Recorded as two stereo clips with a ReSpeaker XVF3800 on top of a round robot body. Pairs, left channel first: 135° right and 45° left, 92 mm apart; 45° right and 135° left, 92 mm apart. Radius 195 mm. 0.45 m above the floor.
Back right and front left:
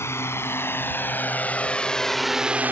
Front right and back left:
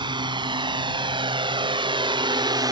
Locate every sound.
0.0 s a drone: 165° left; by 2.7 s 110° left